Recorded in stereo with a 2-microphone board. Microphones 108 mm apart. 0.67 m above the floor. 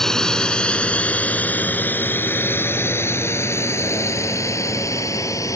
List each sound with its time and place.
0.0 s a drone: 5° left (ahead or behind); by 5.6 s 30° left (ahead or behind)